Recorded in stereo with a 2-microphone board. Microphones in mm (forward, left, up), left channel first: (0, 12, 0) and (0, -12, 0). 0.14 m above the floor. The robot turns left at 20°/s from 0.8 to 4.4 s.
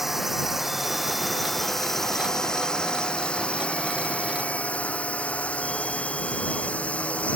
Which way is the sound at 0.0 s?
170° right.